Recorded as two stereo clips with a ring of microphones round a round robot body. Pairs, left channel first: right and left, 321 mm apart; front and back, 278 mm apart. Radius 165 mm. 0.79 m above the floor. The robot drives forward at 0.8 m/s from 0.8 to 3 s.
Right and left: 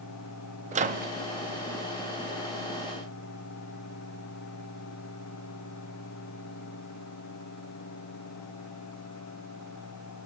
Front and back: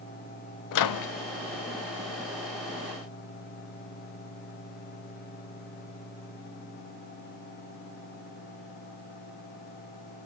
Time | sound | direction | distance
0.7 | a microwave | 20° left | 0.7 m